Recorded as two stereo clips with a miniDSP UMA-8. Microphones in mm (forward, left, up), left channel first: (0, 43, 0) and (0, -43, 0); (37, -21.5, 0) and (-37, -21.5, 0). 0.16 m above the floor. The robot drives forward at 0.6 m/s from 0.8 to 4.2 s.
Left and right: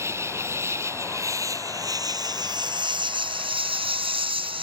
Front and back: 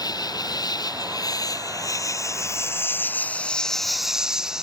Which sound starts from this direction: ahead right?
An insect, at 0.0 s.